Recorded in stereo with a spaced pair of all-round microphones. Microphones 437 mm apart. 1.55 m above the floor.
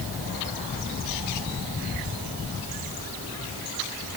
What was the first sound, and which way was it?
Only background noise.